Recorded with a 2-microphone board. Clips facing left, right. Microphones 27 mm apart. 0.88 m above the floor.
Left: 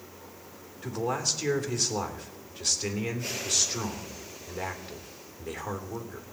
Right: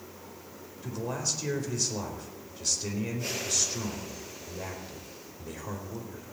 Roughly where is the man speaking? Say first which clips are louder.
Left 4 dB; left.